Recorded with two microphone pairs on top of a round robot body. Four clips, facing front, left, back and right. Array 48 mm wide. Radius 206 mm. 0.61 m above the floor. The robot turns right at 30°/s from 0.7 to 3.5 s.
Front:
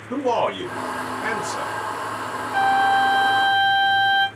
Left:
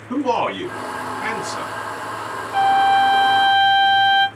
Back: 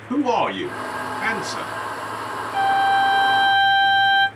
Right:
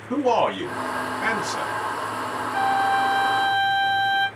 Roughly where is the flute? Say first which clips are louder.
Left 7 dB, even; left.